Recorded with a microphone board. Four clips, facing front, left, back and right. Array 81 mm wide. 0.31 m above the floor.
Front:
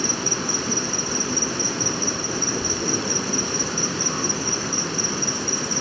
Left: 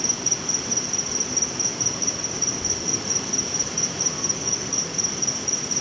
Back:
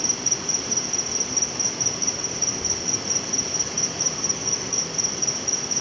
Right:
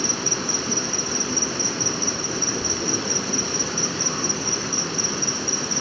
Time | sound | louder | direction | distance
0.0 | an insect | right 5 dB, front 6 dB | 35° right | 1.2 m